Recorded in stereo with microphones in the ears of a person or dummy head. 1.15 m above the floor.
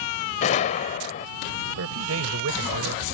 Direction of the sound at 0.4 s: 40° left (ahead or behind).